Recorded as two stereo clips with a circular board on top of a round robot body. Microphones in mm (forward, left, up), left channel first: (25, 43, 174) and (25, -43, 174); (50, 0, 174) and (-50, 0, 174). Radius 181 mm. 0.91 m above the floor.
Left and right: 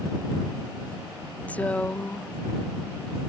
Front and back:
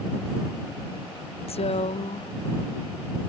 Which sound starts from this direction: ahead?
A woman speaking, at 1.5 s.